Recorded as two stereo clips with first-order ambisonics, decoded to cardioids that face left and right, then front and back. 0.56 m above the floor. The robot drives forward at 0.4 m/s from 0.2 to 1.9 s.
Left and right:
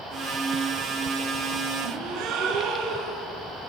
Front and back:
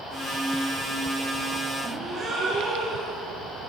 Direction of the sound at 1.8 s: 115° right.